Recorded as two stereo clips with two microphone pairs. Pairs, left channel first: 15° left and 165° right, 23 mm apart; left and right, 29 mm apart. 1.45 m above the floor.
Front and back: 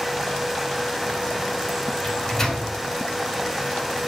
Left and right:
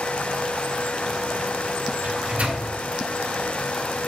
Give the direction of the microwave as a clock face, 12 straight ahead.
2 o'clock.